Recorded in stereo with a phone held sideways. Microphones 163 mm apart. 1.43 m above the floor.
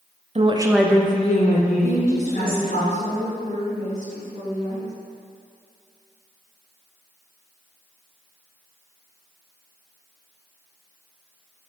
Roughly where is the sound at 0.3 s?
Right.